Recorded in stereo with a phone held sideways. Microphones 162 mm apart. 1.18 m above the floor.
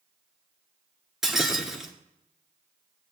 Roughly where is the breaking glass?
Centre.